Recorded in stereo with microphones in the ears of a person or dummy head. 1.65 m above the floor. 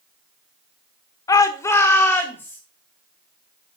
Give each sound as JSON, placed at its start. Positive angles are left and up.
{"t": 1.3, "sound": "a shout", "side_deg": 20, "distance_m": 1.1}